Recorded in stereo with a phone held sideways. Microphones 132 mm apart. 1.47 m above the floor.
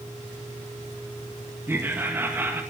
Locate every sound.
1.7 s laughter: 15° right (ahead or behind), 2 m